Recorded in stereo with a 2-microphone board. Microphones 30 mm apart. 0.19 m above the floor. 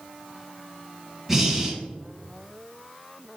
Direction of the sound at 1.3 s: 10° right (ahead or behind).